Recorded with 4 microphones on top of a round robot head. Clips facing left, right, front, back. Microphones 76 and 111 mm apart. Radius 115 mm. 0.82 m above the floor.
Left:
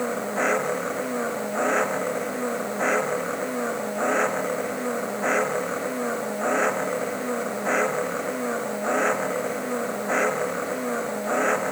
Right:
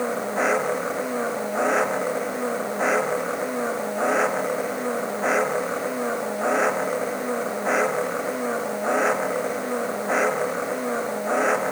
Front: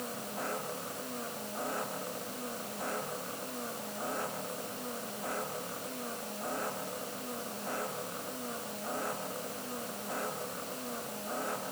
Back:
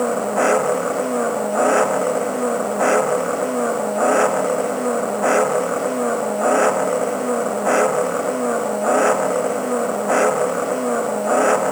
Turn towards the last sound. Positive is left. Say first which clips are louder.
# right 1 dB, back 21 dB
turn(degrees=-175)